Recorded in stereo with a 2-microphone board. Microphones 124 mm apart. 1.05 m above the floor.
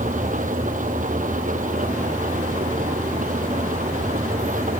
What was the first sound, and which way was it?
An engine running, 90° right.